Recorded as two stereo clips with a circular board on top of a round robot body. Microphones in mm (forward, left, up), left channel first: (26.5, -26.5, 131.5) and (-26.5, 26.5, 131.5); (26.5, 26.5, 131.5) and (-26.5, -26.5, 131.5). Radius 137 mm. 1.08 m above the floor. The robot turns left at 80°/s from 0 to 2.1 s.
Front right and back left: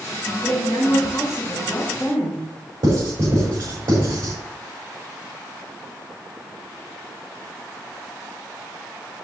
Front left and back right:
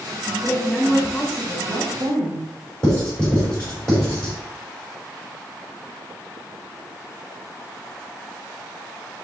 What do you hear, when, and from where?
0.4 s a woman speaking: straight ahead, 3 m; by 2.5 s 130° right, 3 m
2.8 s writing: 120° left, 5 m